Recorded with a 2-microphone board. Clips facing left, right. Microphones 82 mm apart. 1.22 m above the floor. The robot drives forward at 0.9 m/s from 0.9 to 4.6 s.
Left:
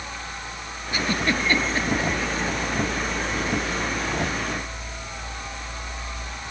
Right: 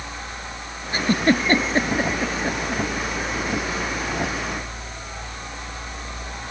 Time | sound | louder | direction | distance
0.9 | a giggle | right 5 dB | 40° right (ahead or behind) | ?